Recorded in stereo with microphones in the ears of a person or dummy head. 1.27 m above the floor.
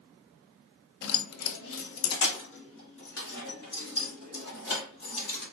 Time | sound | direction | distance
1.0 | keys jangling | 65° left (ahead or behind) | 0.5 m